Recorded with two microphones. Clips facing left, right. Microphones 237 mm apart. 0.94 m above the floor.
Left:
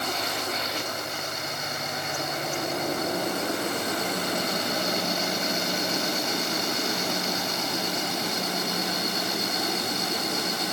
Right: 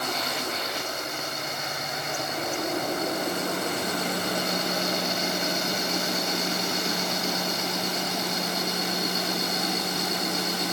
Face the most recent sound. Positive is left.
No sound to turn to.